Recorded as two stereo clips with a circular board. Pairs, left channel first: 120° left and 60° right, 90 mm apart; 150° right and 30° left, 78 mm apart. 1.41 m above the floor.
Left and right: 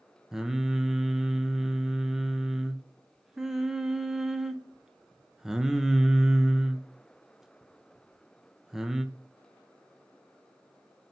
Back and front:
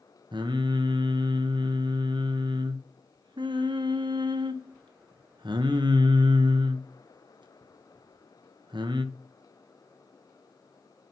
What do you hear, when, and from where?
0.3 s singing: 25° left, 0.9 m